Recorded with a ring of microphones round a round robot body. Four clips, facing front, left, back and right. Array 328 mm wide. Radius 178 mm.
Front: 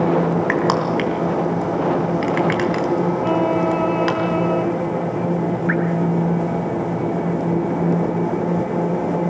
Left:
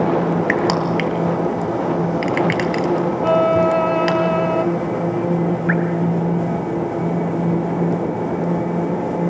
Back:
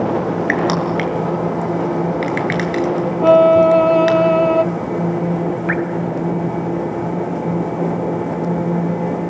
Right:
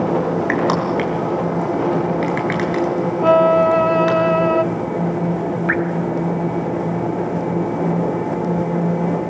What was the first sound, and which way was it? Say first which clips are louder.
Crushing: even, back 1 dB; 130° left.